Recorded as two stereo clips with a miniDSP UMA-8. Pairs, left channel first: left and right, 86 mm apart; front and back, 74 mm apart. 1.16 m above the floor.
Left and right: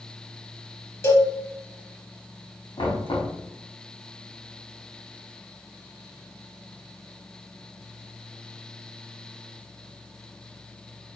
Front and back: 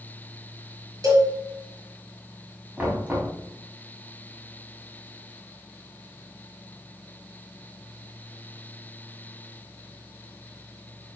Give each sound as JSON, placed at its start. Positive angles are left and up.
{"t": 1.0, "sound": "a cowbell", "azimuth_deg": 150, "distance_m": 3.5}
{"t": 2.8, "sound": "knocking", "azimuth_deg": 110, "distance_m": 2.5}